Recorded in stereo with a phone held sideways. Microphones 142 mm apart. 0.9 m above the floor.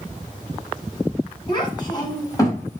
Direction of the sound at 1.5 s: 35° left (ahead or behind).